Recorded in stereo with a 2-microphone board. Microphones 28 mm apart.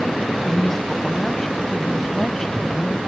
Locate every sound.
0.5 s a woman speaking: 15° left (ahead or behind)